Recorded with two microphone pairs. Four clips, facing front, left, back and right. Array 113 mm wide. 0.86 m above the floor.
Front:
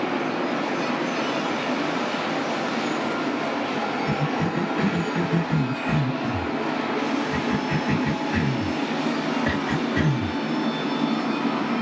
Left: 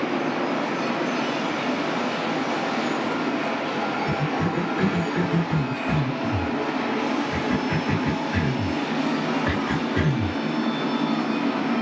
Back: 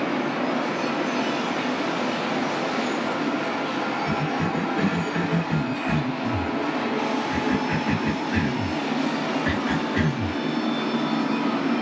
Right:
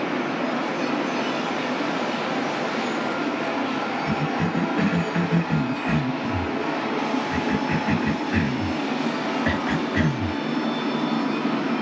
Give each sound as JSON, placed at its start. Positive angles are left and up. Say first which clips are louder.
{"t": 4.1, "sound": "a cough", "louder": "even, even", "azimuth_deg": -95, "distance_m": 1.6}